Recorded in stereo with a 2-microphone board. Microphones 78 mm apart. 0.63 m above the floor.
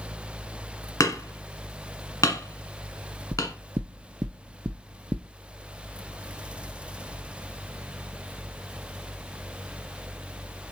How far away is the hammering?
About 1.4 m.